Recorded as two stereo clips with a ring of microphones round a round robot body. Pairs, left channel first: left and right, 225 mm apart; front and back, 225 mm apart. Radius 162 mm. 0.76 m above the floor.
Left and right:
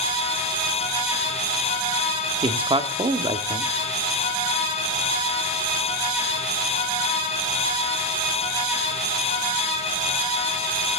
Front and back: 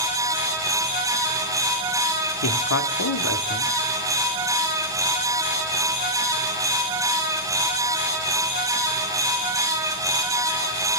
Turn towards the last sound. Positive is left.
turn(degrees=-20)